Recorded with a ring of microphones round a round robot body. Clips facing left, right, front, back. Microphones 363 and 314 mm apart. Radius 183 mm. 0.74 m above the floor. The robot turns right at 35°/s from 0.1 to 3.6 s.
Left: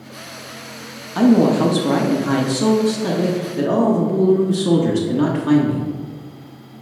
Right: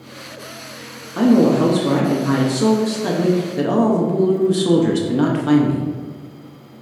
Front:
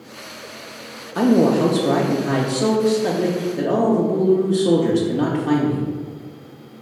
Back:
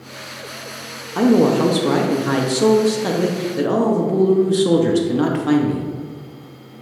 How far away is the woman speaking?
About 0.5 m.